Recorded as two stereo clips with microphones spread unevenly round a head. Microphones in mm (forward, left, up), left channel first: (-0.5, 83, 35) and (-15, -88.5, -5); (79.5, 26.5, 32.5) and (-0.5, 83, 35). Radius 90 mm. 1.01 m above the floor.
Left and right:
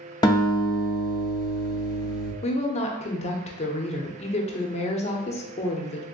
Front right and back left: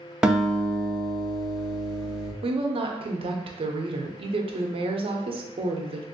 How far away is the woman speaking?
About 0.6 m.